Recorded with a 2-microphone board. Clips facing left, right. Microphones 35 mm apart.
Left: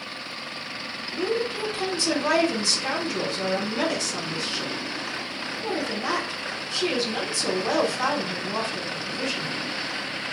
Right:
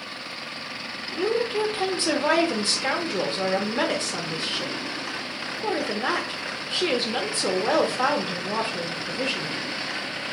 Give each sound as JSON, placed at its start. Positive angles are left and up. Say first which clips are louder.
{"t": 1.1, "sound": "a woman speaking", "louder": "right 2 dB", "side_deg": -30, "distance_m": 0.7}